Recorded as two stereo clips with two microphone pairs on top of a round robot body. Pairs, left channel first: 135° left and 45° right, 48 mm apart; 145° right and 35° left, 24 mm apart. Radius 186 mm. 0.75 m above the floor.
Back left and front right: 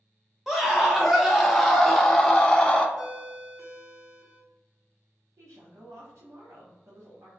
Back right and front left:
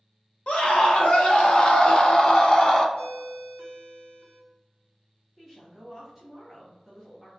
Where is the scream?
140° right, 2 m; by 2.9 s 170° left, 1.4 m.